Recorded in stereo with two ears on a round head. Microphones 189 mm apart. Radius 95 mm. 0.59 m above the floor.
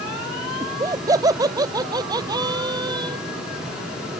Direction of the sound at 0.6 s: 15° right (ahead or behind).